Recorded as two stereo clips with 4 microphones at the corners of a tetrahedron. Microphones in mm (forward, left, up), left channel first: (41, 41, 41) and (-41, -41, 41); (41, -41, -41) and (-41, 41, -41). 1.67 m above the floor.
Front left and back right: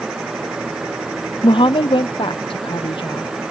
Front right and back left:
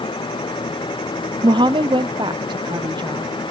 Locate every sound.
1.4 s a woman speaking: 85° left